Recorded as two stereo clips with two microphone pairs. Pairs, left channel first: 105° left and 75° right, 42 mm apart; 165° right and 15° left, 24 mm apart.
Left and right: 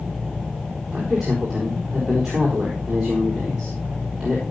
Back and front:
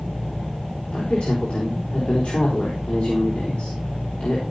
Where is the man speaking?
150° right, 4.5 m.